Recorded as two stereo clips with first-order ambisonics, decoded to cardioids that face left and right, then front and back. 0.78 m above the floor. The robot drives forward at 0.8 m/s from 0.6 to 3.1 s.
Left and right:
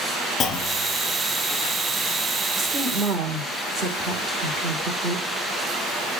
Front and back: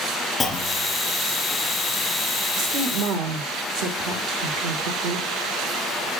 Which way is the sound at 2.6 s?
150° right.